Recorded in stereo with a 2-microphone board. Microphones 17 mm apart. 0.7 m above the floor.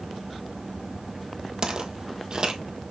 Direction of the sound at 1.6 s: 45° right (ahead or behind).